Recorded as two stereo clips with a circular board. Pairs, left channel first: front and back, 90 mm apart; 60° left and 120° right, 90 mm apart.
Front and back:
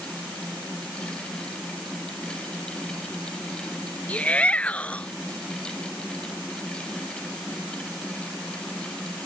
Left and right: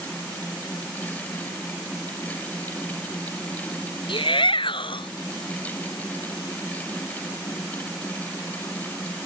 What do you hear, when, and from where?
4.1 s a shout: 75° left